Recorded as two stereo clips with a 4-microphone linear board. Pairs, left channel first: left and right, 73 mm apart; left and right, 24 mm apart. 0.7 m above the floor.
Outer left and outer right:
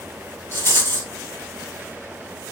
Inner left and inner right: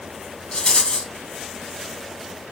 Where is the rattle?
35° left (ahead or behind), 3 m.